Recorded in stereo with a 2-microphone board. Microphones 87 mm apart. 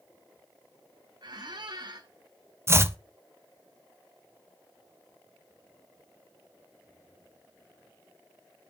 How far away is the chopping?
About 0.5 m.